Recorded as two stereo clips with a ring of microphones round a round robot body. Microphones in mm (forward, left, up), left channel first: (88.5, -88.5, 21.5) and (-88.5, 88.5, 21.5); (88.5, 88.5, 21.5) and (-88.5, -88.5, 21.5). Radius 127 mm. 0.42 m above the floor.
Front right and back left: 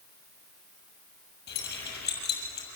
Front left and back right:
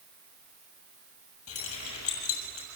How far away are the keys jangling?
About 7 m.